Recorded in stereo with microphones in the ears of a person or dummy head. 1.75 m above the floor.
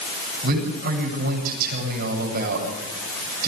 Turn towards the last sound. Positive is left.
turn(degrees=-50)  # may be behind; listen again after turning